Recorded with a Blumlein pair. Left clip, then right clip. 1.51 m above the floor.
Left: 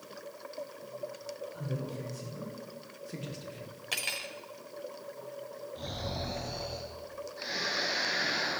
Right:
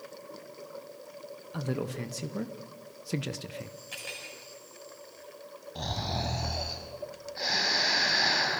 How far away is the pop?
No pop in this recording.